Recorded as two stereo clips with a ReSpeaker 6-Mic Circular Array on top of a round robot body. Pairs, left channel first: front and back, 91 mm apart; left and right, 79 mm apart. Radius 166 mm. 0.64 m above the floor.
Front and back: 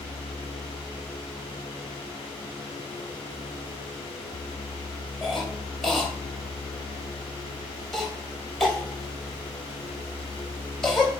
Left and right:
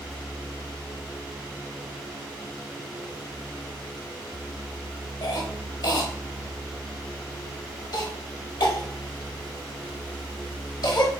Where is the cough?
85° left, 1.1 m.